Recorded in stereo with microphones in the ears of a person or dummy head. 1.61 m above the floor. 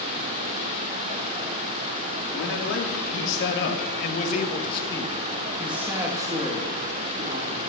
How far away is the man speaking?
About 3.5 m.